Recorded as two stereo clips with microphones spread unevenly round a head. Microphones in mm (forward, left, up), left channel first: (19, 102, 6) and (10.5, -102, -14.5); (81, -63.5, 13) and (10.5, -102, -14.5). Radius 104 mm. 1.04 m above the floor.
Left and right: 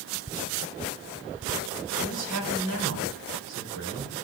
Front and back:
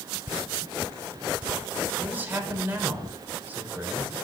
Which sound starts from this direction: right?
A man speaking, at 2.0 s.